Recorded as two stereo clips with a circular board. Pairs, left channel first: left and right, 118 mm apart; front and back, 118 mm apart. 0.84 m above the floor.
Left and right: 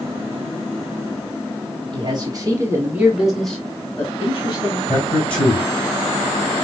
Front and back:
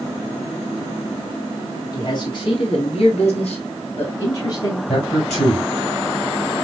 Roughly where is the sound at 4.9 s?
Ahead.